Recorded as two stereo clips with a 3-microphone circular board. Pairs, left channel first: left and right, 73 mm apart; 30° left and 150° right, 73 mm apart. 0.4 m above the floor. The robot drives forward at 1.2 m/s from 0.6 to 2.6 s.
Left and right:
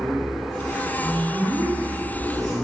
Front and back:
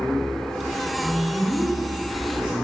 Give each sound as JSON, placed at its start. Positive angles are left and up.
{"t": 1.0, "sound": "a man speaking", "azimuth_deg": -95, "distance_m": 2.5}